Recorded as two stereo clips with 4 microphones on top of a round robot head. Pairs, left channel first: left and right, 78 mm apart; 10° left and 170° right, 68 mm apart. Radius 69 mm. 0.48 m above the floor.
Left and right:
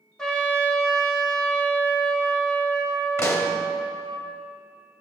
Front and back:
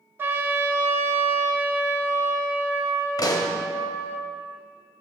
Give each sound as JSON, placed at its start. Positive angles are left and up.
{"t": 0.2, "sound": "a trumpet", "azimuth_deg": 165, "distance_m": 1.2}
{"t": 3.2, "sound": "a pop", "azimuth_deg": 35, "distance_m": 1.3}